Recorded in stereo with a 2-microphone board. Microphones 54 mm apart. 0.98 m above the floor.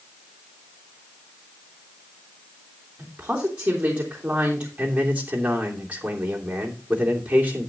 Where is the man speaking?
30° right (ahead or behind), 2.5 m.